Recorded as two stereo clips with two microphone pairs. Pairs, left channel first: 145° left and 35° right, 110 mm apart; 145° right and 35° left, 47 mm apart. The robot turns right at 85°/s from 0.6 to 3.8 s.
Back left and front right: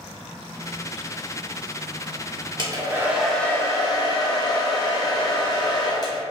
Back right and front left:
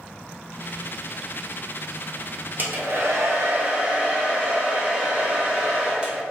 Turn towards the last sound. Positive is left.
turn(degrees=100)